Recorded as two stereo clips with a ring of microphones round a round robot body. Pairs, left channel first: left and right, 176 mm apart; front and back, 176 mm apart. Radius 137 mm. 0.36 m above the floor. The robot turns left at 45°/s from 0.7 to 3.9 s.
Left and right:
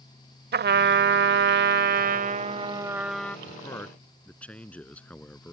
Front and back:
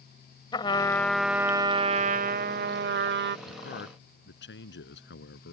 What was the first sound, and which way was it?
A trumpet, 70° right.